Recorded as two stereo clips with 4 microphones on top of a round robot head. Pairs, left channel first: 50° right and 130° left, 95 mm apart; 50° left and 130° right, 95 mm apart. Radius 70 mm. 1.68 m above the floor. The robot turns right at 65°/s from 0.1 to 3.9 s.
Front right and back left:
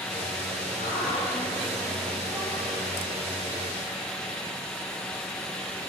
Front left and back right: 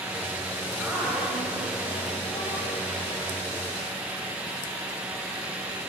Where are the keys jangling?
I don't hear keys jangling.